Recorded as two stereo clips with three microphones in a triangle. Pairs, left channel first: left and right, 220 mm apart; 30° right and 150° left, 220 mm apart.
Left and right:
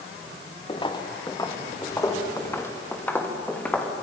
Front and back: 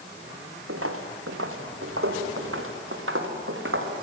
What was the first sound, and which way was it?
Footsteps, 155° left.